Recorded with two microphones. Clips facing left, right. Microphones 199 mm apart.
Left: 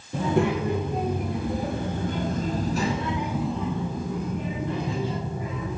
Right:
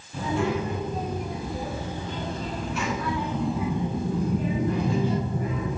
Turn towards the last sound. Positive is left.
turn(degrees=-55)  # may be behind; listen again after turning